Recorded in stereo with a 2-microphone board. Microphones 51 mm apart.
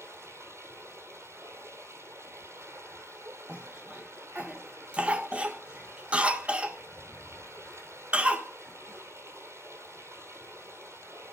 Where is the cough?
25° right (ahead or behind), 1.5 m.